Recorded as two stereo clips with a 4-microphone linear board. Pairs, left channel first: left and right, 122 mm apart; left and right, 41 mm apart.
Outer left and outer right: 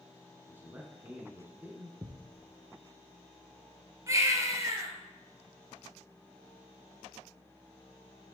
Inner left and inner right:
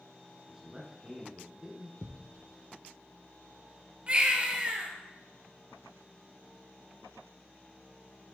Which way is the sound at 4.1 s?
25° right (ahead or behind).